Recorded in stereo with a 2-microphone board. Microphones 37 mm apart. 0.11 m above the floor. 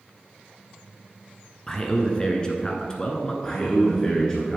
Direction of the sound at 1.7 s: 20° left (ahead or behind).